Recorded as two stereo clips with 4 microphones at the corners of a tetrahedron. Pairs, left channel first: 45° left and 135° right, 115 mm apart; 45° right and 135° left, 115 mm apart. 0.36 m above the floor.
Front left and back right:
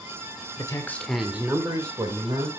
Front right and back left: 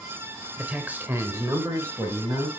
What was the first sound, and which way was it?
A man speaking, 60° left.